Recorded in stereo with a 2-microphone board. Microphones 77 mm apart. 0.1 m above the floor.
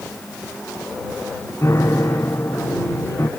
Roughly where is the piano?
Left.